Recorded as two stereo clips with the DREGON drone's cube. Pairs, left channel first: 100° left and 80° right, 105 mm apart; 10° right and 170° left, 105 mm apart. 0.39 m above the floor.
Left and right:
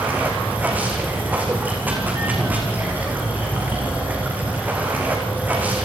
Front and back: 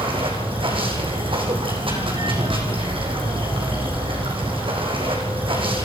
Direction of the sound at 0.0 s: 155° right.